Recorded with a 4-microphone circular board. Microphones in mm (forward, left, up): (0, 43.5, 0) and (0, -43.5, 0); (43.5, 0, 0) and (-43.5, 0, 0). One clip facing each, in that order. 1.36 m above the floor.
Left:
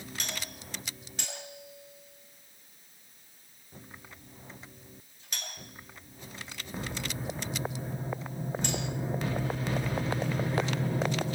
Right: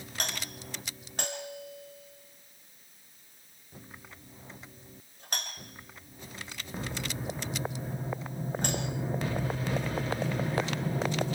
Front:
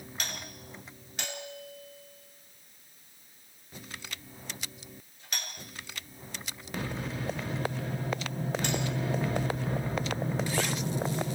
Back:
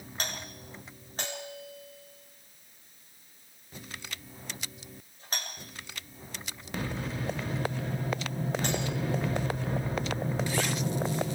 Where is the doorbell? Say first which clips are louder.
Right 5 dB, back 3 dB; 130° right, 6.5 m.